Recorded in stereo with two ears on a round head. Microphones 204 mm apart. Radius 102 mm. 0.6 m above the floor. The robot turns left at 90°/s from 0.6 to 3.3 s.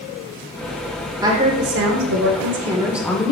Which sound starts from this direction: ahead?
A woman speaking, at 1.2 s.